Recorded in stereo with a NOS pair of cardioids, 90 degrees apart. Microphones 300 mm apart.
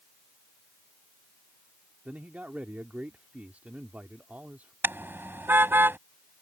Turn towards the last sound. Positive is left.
turn(degrees=-5)